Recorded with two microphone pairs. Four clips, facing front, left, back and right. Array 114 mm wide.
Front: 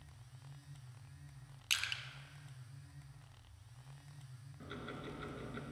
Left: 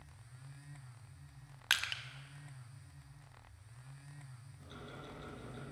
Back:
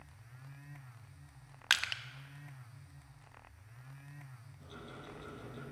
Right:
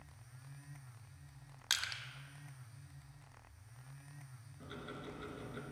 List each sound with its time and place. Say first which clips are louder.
1.7 s crushing: left 5 dB, back 9 dB; 160° left, 1.0 m
4.6 s ticking: right 3 dB, front 3 dB; 30° right, 3 m